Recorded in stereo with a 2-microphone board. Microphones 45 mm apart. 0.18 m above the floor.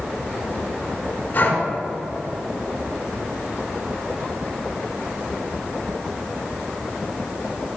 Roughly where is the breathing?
Left.